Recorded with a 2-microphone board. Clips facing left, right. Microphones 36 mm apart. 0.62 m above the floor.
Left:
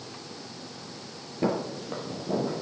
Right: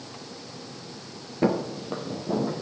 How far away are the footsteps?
About 0.8 m.